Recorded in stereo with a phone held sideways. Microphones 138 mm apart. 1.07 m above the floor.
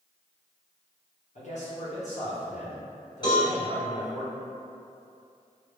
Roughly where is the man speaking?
Left.